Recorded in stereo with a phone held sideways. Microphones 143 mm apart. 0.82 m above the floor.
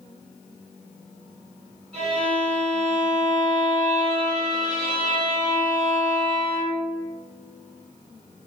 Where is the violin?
45° right (ahead or behind), 1.4 m.